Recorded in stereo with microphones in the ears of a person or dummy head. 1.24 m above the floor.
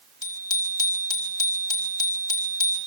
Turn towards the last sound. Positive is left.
turn(degrees=25)  # may be behind; listen again after turning